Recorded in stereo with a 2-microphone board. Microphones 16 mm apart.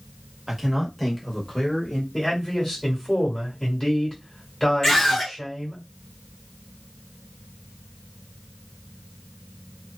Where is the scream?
25° left (ahead or behind), 1.5 m.